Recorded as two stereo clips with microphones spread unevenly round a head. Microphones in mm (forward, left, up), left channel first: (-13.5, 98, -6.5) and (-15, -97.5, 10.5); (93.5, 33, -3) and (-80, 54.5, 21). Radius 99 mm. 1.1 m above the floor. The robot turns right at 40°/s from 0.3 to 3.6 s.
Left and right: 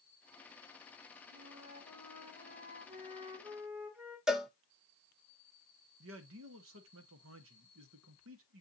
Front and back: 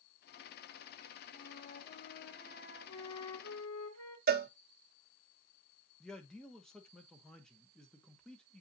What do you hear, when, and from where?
1.3 s a flute: 100° right, 2 m; by 4.2 s 10° right, 2 m
4.3 s a cowbell: 175° left, 0.8 m
6.0 s a man speaking: 90° right, 1.2 m